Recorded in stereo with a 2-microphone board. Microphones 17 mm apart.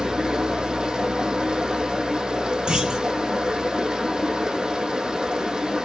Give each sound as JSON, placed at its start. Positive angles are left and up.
{"t": 0.0, "sound": "running water", "side_deg": -80, "distance_m": 4.0}
{"t": 2.7, "sound": "a clunk", "side_deg": -80, "distance_m": 6.0}